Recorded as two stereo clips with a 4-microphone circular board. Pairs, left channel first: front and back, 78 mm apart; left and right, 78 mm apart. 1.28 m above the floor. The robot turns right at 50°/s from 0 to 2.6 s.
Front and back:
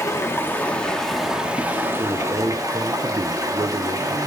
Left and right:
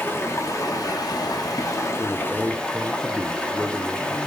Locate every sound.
0.0 s running water: 30° left, 1.0 m; by 4.3 s 160° left, 1.0 m
2.0 s a man speaking: 150° left, 0.6 m; by 4.2 s straight behind, 0.6 m